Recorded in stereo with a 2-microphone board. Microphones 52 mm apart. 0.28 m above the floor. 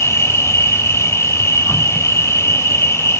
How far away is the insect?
About 1.5 m.